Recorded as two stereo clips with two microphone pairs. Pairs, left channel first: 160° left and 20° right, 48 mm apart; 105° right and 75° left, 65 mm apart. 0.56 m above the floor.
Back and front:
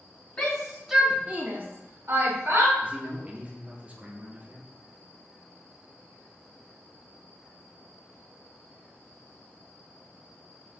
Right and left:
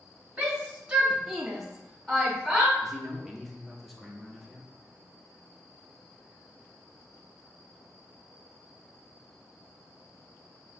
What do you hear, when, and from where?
0.4 s a shout: 130° left, 0.9 m; by 2.7 s 25° right, 1.8 m
2.8 s a man speaking: 25° right, 0.8 m